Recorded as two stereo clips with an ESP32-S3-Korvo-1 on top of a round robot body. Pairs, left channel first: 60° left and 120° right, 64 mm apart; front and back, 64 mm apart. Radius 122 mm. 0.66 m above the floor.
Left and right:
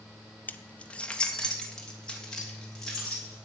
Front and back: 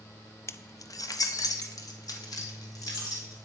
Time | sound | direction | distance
0.5 | keys jangling | 10° left | 0.6 m